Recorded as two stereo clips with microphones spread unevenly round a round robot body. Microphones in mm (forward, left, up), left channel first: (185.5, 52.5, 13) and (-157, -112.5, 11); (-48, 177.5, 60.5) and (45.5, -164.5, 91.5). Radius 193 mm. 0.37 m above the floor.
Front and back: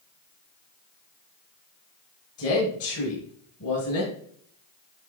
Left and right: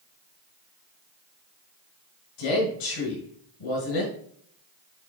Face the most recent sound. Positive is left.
turn(degrees=80)